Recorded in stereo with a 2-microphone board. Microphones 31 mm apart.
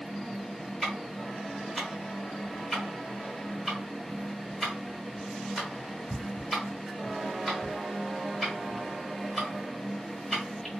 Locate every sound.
0.8 s ticking: 5° right (ahead or behind), 1.8 m